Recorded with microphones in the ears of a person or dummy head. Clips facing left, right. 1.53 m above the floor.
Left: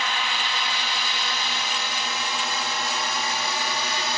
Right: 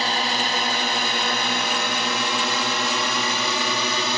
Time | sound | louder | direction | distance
0.0 | a drone | right 5 dB | 30° right (ahead or behind) | ?